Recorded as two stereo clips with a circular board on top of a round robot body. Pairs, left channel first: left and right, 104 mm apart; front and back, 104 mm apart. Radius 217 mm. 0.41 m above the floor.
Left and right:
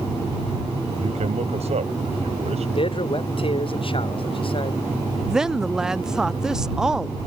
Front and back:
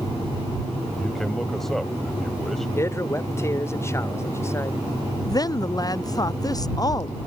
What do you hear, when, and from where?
1.0 s a man speaking: 85° right
2.8 s a man speaking: 65° left
5.2 s a woman speaking: 10° right